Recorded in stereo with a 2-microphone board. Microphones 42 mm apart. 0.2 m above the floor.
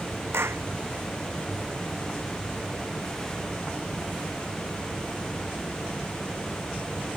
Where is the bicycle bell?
I don't hear a bicycle bell.